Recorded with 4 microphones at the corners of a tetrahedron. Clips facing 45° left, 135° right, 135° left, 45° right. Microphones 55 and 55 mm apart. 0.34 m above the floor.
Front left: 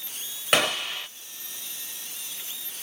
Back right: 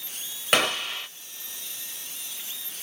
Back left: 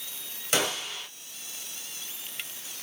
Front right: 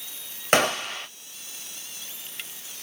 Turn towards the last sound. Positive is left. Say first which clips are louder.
# even, front right 7 dB
turn(degrees=-45)